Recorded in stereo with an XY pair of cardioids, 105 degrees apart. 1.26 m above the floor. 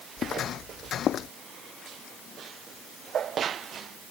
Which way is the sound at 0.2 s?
65° left.